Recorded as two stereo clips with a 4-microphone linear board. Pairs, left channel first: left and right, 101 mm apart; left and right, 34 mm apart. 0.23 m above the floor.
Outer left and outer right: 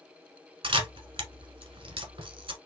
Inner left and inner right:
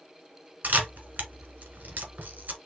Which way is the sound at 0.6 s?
60° right (ahead or behind).